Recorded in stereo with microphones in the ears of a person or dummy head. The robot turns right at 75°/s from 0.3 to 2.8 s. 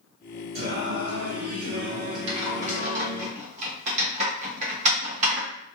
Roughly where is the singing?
Behind right.